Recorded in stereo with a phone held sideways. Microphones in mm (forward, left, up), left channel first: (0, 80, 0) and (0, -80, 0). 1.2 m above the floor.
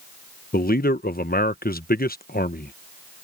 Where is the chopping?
I don't hear chopping.